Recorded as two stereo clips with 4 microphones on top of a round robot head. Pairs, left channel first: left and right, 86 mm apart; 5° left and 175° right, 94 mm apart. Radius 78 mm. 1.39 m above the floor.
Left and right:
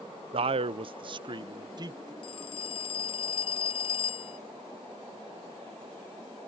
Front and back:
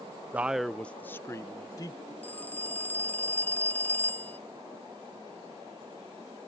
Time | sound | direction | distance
0.3 | a man speaking | 100° right | ?
2.2 | a phone ringing | 80° left | ?